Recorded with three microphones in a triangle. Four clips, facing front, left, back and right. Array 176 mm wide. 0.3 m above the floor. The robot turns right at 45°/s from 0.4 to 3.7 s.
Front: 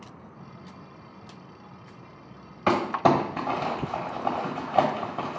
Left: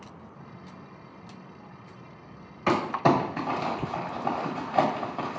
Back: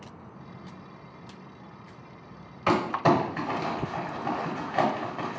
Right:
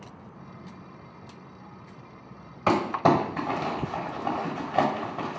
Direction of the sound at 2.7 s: 50° right.